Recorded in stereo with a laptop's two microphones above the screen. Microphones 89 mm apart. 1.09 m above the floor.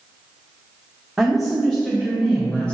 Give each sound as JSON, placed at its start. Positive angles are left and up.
{"t": 1.2, "sound": "a woman speaking", "side_deg": -5, "distance_m": 1.2}